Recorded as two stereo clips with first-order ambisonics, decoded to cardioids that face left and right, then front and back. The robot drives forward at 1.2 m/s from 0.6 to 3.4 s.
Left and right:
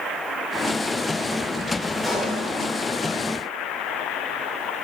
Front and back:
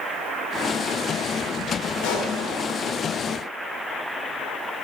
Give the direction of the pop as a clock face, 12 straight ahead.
12 o'clock.